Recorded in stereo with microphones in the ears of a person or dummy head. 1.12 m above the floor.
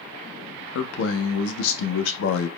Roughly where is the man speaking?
Left.